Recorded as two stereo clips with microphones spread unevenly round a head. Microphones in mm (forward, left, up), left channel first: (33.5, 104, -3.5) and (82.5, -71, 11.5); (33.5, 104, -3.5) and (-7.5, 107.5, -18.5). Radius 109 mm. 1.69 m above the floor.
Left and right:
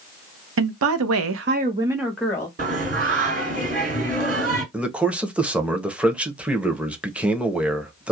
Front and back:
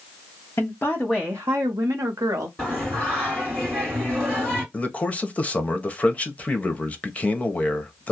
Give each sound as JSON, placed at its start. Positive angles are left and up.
{"t": 0.6, "sound": "a woman speaking", "azimuth_deg": -65, "distance_m": 0.7}
{"t": 2.6, "sound": "singing", "azimuth_deg": -60, "distance_m": 1.9}
{"t": 4.7, "sound": "a man speaking", "azimuth_deg": 5, "distance_m": 0.7}